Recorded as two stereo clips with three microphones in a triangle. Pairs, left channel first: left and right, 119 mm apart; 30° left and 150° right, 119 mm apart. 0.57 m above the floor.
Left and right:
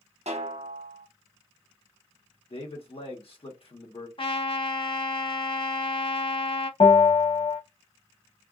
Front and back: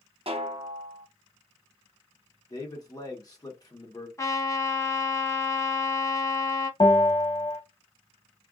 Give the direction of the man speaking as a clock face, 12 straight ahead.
9 o'clock.